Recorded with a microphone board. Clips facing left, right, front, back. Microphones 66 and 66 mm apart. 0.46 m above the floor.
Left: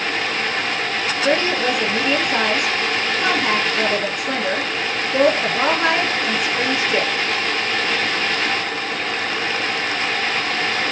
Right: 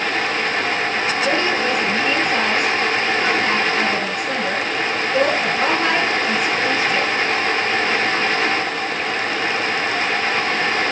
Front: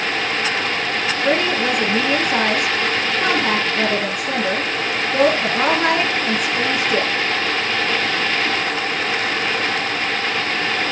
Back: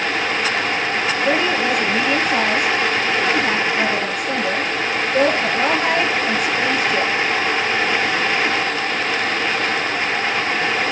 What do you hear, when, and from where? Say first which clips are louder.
1.2 s a woman speaking: left 3 dB, front 1 dB; 25° left, 4 m